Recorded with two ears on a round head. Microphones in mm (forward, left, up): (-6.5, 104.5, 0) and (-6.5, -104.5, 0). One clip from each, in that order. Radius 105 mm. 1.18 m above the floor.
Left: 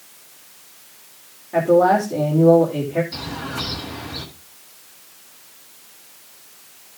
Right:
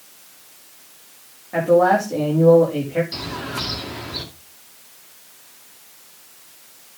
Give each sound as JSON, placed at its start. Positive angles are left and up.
{"t": 1.5, "sound": "a man speaking", "side_deg": -15, "distance_m": 3.0}
{"t": 3.1, "sound": "a bird", "side_deg": -25, "distance_m": 2.5}